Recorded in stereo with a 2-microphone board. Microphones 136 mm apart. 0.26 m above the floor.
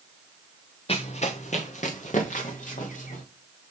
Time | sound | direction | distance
0.9 | running footsteps | 45° left (ahead or behind) | 1.1 m